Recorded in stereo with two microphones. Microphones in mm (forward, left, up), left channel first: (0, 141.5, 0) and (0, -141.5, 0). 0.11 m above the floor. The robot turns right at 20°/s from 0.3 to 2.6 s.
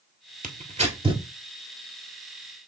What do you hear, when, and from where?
0.4 s tearing paper: 30° right (ahead or behind), 0.9 m; by 1.2 s 15° right (ahead or behind), 0.9 m